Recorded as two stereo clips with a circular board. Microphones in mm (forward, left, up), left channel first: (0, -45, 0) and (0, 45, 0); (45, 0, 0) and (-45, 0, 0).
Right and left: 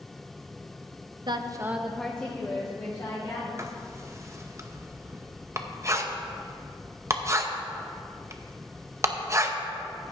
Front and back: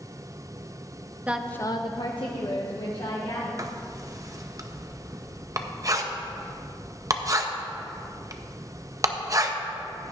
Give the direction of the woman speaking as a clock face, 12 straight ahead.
8 o'clock.